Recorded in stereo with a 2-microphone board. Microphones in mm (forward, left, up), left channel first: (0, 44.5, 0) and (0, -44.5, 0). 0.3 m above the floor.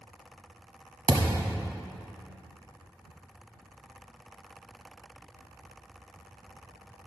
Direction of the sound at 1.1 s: 55° right (ahead or behind).